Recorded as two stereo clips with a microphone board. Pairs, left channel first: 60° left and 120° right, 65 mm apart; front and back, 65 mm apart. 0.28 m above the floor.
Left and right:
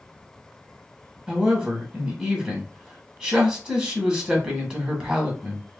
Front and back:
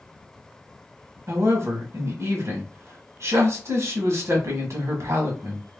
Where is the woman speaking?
170° left, 1.3 m.